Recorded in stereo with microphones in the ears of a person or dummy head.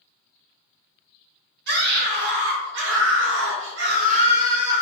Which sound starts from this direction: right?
A scream, at 1.7 s.